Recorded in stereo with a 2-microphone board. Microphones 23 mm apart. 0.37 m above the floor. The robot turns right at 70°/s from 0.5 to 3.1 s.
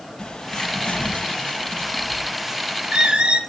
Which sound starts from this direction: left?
A bird, at 0.2 s.